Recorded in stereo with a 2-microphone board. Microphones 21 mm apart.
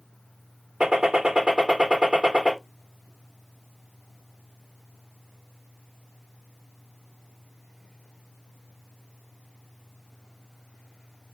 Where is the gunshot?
50° right (ahead or behind), 1.2 m.